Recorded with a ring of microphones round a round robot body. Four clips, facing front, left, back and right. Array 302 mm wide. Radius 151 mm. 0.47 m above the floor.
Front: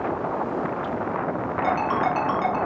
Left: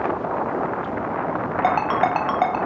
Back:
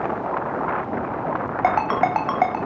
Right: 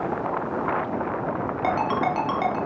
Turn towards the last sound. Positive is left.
turn(degrees=145)